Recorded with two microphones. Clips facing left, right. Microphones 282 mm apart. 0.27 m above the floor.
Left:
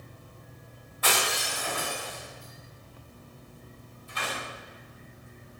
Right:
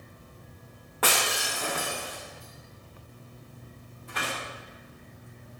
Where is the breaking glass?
85° right, 8.5 m.